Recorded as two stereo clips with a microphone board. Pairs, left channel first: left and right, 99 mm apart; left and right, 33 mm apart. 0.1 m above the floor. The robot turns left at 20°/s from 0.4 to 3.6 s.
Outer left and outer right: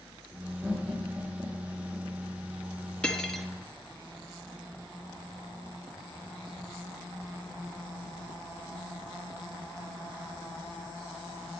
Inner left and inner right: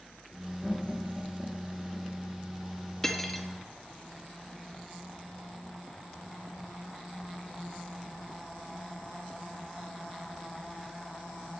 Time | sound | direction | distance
0.6 | laughter | 5° right (ahead or behind) | 1.5 m
3.0 | cutlery clinking | 10° left (ahead or behind) | 1.0 m